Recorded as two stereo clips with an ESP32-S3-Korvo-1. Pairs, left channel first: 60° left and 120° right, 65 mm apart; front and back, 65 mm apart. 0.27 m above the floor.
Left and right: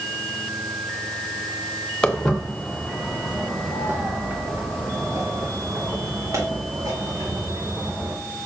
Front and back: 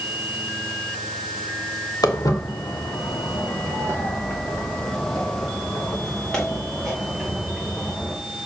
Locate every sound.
2.0 s footsteps: 15° right, 2 m; by 8.1 s 90° right, 5.5 m